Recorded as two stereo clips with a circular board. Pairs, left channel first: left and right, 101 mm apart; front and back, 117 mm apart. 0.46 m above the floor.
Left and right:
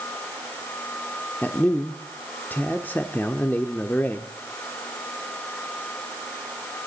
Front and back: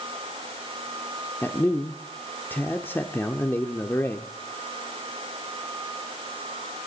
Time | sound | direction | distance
1.4 | a man speaking | 45° left | 0.7 m